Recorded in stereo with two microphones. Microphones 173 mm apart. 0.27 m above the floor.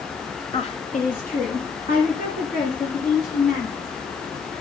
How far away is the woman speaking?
About 1.0 m.